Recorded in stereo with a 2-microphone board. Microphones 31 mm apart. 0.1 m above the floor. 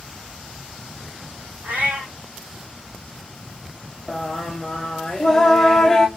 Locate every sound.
1.6 s a cat meowing: 75° right (ahead or behind), 1.1 m
4.1 s singing: 10° left (ahead or behind), 0.5 m